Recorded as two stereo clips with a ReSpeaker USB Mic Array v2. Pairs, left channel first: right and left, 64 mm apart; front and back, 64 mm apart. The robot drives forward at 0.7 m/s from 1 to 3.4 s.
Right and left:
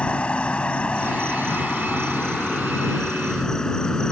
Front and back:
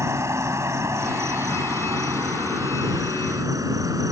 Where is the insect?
160° right; by 4.1 s 170° right.